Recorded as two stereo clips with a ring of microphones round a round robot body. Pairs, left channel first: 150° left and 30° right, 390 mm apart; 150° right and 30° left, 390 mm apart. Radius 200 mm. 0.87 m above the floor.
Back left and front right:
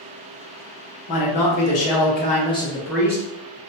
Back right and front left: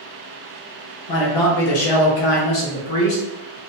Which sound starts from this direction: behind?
A man speaking, at 1.1 s.